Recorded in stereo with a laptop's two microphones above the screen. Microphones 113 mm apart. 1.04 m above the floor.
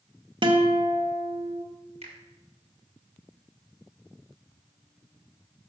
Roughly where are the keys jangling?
I don't hear keys jangling.